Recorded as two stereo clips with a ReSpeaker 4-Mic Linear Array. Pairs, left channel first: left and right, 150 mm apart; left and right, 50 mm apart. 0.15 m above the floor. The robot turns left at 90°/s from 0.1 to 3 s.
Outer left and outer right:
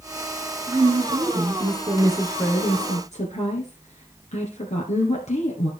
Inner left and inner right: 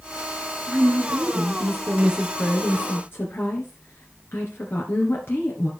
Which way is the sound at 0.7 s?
30° right.